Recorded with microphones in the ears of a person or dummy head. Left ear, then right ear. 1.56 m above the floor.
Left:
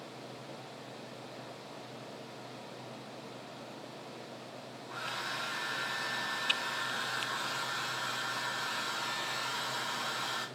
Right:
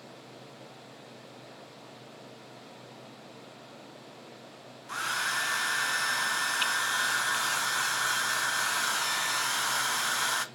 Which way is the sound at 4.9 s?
50° right (ahead or behind).